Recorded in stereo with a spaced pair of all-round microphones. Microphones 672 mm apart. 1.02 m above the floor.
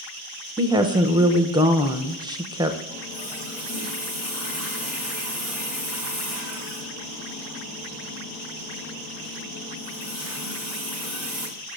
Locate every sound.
0.6 s a woman speaking: 5° right (ahead or behind), 0.7 m
2.9 s a running tap: centre (ahead or behind), 4.5 m